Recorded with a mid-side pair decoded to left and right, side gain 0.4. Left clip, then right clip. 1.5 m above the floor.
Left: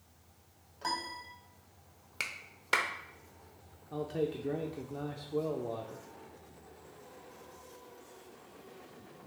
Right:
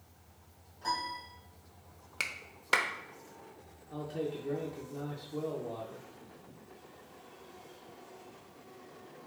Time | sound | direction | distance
0.8 | a piano | 65° left | 1.2 m
2.2 | a clap | 15° right | 0.5 m
3.9 | a man speaking | 40° left | 0.5 m